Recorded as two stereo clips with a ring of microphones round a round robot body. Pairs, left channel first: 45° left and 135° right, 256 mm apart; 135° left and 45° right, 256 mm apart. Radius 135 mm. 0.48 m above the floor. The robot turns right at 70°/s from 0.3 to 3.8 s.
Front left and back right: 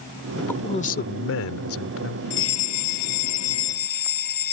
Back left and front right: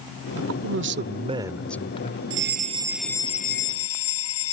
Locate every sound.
0.4 s a man speaking: 45° right; by 2.2 s 85° left
2.3 s a fire alarm: 5° right; by 4.5 s 100° left